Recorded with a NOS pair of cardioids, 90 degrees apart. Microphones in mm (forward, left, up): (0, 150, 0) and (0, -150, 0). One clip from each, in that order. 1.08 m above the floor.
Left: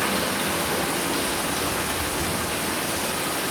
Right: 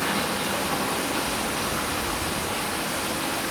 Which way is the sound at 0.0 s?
70° left.